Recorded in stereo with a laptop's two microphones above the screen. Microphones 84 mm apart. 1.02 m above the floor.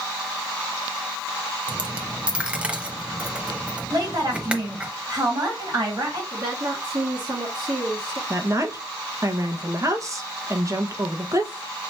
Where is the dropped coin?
15° right (ahead or behind), 0.9 m.